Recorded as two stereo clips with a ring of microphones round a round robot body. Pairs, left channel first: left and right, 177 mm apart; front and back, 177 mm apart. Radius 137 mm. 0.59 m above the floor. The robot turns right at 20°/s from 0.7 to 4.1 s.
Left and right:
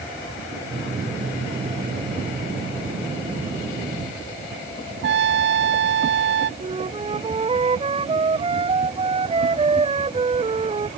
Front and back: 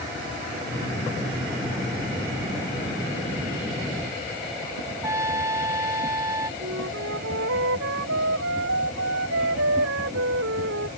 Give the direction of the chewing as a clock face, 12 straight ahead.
No chewing in this recording.